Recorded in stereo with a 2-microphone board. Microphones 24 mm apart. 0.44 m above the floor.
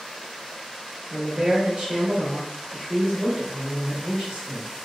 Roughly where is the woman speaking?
Right.